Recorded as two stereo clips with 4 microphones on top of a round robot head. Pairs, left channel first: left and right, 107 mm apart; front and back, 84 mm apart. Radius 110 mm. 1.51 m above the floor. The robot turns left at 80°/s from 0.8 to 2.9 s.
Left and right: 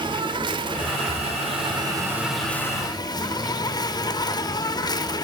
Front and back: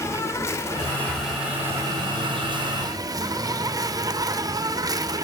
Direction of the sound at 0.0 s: 55° right.